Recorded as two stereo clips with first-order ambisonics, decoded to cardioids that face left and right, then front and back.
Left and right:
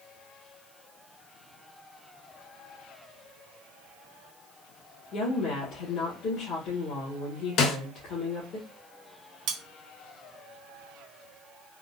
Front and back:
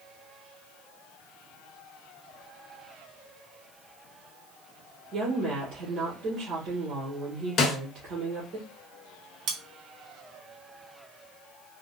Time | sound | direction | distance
5.1 | a woman speaking | 140° left | 1.3 m
7.6 | a snare drum | 50° left | 0.7 m
9.5 | cutlery clinking | 130° right | 0.7 m